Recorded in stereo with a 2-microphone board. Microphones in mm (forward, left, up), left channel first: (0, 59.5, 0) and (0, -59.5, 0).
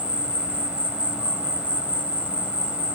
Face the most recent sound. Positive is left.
turn(degrees=-10)  # may be behind; listen again after turning